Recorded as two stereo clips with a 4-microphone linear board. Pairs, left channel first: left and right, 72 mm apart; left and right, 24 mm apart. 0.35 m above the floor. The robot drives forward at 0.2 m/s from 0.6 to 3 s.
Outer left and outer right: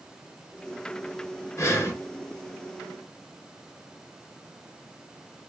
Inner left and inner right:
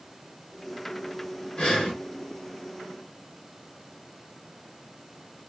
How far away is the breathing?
About 0.6 m.